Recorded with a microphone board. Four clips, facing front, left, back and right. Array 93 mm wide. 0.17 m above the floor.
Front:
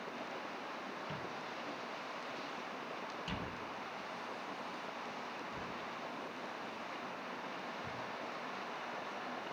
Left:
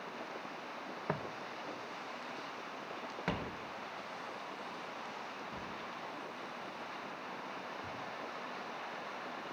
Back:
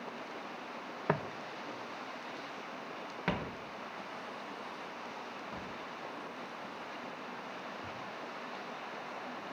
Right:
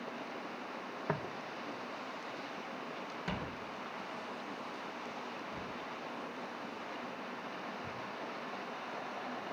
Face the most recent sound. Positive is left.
turn(degrees=150)